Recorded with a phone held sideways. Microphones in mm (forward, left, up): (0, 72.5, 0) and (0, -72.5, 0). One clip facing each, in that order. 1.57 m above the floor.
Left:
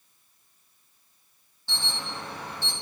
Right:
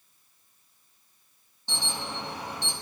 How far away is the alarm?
About 5.5 m.